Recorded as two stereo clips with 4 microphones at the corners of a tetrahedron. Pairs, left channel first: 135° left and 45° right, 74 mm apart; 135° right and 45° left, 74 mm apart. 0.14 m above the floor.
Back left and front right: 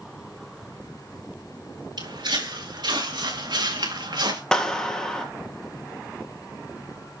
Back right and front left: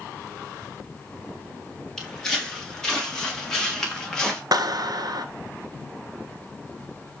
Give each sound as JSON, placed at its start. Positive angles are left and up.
{"t": 2.0, "sound": "footsteps", "azimuth_deg": -50, "distance_m": 6.0}
{"t": 4.5, "sound": "a clap", "azimuth_deg": 55, "distance_m": 1.7}